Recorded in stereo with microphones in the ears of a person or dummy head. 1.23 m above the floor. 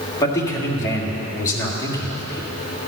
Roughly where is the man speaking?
Centre.